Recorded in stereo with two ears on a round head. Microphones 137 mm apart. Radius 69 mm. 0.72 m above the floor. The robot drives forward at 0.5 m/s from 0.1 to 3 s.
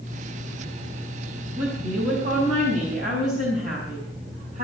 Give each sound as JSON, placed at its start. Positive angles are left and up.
{"t": 1.6, "sound": "a woman speaking", "side_deg": -65, "distance_m": 4.5}